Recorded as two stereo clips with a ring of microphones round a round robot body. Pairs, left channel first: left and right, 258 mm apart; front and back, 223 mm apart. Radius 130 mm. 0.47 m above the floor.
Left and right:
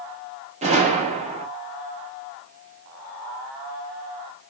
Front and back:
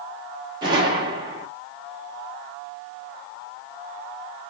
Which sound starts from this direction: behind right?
A gunshot, at 0.6 s.